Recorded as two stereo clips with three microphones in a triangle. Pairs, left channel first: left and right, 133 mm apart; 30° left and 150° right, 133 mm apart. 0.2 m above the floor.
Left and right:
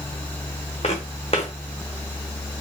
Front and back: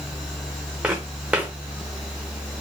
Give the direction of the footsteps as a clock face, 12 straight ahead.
8 o'clock.